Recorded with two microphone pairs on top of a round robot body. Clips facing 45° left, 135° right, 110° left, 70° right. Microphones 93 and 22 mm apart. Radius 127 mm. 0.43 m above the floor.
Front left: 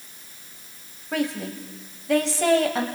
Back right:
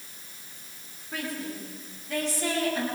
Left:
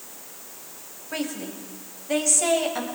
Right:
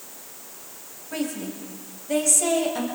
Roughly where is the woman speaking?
Ahead left.